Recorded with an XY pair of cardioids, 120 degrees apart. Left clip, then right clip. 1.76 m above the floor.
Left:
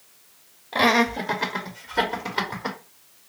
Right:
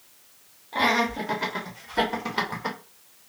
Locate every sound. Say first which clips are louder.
0.7 s laughter: left 3 dB; 35° left, 0.9 m; by 2.8 s 5° right, 1.8 m